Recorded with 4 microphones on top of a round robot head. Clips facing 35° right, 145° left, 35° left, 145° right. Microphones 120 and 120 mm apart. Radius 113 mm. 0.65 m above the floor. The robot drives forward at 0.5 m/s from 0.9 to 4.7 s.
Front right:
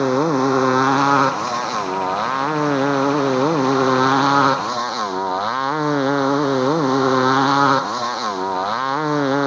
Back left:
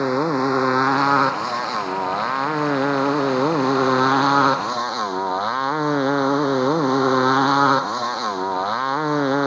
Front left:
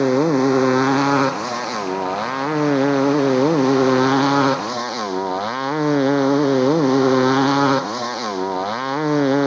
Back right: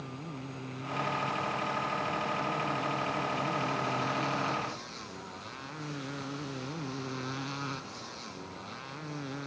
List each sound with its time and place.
0.0 s a motorcycle: 50° left; by 9.5 s 55° left